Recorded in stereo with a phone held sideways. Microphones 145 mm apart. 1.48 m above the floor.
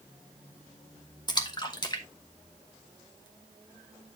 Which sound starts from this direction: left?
A splash, at 1.3 s.